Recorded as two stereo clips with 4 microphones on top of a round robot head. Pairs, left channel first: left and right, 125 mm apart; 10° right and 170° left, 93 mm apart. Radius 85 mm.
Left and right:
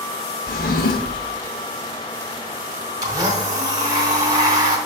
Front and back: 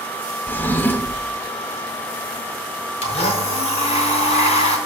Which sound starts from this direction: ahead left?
A drawer, at 0.5 s.